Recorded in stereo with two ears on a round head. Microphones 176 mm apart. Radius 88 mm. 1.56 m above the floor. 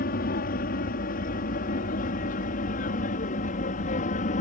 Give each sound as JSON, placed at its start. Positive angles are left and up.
{"t": 0.0, "sound": "an aircraft", "side_deg": 45}